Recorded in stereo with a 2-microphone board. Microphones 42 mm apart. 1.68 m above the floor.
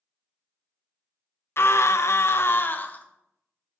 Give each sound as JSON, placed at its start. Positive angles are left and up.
{"t": 1.6, "sound": "a scream", "side_deg": 65, "distance_m": 0.7}